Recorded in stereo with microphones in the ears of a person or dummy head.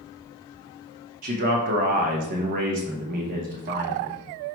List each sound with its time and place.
1.2 s a man speaking: 40° right (ahead or behind), 0.8 m